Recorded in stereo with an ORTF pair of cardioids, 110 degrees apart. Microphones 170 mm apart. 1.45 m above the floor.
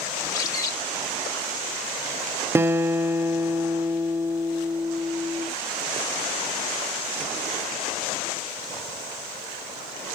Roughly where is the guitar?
Ahead.